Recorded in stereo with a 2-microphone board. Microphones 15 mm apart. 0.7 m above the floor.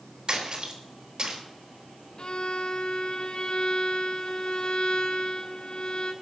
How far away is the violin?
About 2 m.